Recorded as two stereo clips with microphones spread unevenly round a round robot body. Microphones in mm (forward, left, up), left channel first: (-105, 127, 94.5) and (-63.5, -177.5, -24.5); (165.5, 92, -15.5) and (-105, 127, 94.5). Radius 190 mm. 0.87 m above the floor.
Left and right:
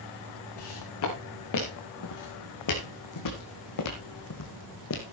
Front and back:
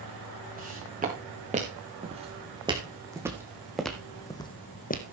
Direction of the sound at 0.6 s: 120° left.